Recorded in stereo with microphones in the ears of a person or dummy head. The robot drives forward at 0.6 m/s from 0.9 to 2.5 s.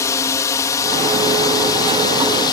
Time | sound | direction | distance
0.0 | a drone | 15° left (ahead or behind) | ?